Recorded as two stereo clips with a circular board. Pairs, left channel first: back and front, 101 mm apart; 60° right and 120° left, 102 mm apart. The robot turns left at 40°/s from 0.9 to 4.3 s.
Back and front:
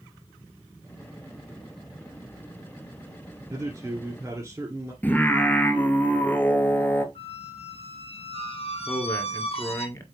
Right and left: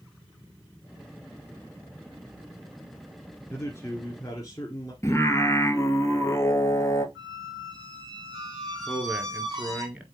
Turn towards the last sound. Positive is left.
turn(degrees=-170)